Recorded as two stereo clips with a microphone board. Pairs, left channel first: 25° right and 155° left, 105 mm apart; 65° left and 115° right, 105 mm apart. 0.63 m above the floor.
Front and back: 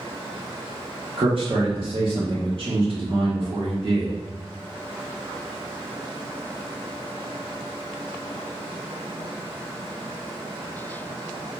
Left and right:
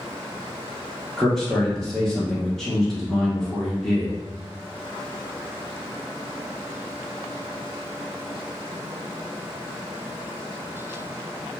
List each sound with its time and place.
1.2 s a man speaking: 155° left, 1.1 m